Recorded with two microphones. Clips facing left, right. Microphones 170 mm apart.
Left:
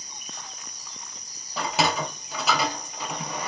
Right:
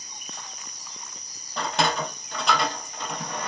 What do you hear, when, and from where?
1.6 s a sliding door: 5° left (ahead or behind), 0.5 m